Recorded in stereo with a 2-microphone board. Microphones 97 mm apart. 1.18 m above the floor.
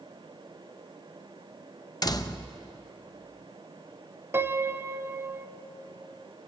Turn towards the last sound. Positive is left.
turn(degrees=-25)  # may be behind; listen again after turning